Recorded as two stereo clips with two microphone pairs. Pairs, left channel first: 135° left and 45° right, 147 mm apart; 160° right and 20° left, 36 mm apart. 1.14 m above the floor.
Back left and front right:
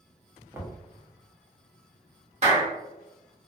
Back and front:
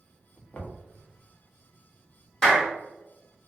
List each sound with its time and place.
0.5 s knocking: 115° right, 0.6 m
2.4 s a clap: 85° right, 1.1 m